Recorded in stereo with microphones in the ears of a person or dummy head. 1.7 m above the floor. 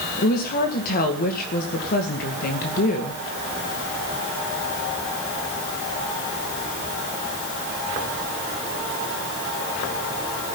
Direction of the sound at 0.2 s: 50° left (ahead or behind).